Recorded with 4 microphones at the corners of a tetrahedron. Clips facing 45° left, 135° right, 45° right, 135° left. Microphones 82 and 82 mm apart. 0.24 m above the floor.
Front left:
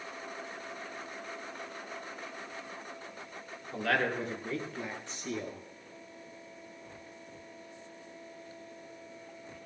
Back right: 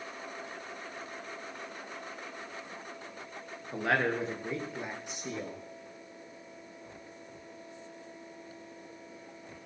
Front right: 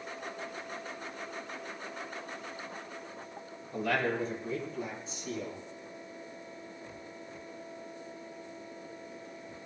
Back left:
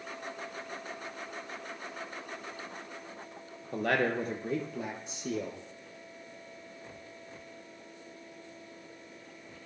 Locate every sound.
3.7 s a man speaking: 160° left, 3.5 m; by 5.6 s 150° left, 4.5 m